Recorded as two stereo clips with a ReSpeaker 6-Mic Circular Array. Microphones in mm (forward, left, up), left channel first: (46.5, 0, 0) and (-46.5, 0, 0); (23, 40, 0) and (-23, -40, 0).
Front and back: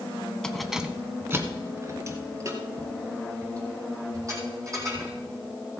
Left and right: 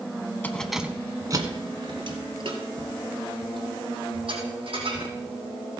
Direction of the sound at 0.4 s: 65° left.